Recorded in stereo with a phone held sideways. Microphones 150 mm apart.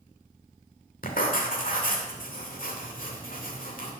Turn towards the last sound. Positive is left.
turn(degrees=70)  # may be behind; listen again after turning